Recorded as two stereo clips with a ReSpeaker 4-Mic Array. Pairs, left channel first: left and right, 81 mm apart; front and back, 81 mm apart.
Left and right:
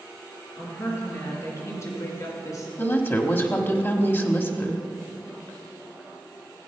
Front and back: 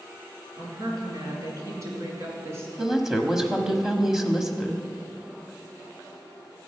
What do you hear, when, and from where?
0.6 s a woman speaking: 145° left, 3.5 m; by 2.7 s 125° left, 3 m
2.8 s a woman speaking: 100° left, 1.0 m